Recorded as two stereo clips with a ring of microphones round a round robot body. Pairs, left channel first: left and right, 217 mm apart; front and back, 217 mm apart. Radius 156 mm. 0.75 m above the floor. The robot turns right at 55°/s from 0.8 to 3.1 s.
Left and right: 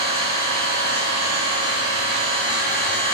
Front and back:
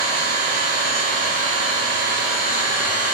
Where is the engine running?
110° right, 1.5 m; by 3.2 s 15° left, 1.5 m.